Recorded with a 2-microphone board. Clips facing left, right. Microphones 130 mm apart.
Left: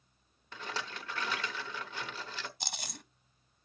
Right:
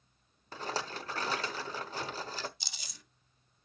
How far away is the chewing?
About 0.7 m.